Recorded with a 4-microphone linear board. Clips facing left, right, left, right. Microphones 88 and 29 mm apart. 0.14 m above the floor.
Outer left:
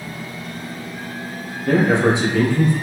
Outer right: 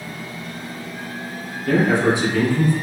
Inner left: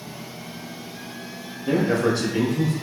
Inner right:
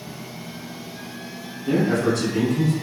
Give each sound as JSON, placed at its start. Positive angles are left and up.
{"t": 1.7, "sound": "a man speaking", "side_deg": 25, "distance_m": 1.6}